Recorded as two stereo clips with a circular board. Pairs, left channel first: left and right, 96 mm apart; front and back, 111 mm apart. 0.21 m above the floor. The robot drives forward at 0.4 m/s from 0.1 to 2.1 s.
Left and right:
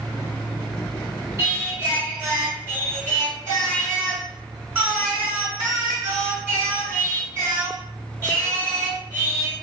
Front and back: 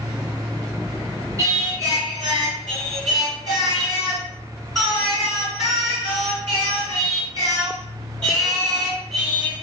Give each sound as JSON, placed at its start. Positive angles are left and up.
{"t": 1.4, "sound": "singing", "azimuth_deg": -135, "distance_m": 1.6}